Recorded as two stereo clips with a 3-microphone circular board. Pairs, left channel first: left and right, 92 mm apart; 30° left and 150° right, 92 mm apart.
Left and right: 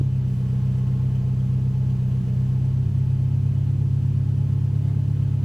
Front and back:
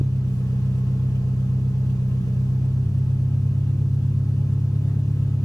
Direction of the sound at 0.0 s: 5° right.